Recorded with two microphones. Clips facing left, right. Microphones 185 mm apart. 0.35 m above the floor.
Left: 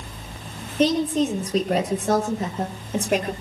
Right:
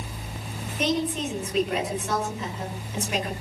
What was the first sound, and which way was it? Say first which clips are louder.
A woman speaking: left 6 dB; 35° left (ahead or behind).